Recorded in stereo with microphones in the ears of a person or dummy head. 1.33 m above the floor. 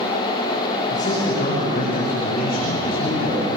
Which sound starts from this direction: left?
A man speaking, at 0.9 s.